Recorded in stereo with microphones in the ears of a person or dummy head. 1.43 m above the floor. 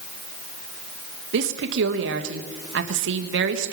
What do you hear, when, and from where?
1.3 s a woman speaking: 75° right (ahead or behind), 1.3 m